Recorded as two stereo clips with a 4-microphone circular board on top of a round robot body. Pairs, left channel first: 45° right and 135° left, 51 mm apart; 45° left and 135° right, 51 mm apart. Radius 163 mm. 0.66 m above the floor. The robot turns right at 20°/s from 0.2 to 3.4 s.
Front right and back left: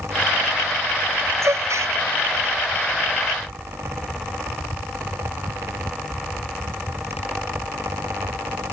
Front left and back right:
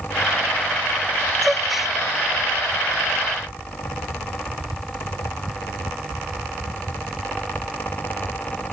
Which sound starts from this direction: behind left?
A gasp, at 1.4 s.